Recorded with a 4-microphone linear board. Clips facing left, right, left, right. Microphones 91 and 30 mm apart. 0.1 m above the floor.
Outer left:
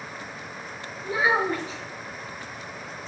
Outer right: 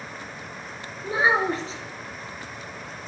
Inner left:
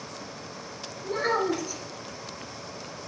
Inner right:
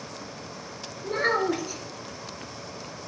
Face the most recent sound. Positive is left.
turn(degrees=-30)  # may be behind; listen again after turning